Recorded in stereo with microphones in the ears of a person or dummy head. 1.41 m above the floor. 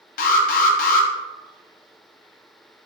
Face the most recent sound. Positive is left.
turn(degrees=55)  # may be behind; listen again after turning